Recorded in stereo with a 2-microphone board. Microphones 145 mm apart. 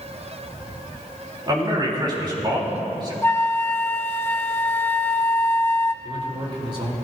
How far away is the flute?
About 0.5 m.